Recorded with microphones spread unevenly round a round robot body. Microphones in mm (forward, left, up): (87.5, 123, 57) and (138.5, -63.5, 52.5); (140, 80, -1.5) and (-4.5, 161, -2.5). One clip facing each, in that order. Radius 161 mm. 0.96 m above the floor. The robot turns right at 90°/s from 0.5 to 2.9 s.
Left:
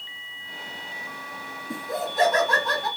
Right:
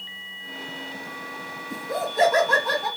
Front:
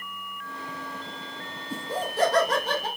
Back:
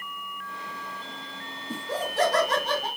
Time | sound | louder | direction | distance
1.7 | laughter | right 1 dB, even | 110° left | 2.0 m